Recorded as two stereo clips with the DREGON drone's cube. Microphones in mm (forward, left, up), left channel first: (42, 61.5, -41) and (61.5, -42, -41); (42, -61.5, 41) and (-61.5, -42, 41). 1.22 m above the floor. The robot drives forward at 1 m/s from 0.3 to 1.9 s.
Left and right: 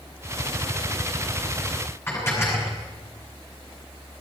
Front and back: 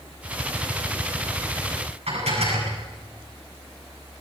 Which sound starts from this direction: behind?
Dishes clattering, at 2.1 s.